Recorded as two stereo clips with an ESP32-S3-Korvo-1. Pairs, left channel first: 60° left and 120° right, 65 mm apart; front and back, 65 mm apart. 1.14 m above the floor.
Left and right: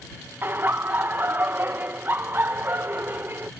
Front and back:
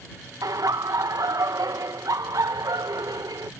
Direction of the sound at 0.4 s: 175° right.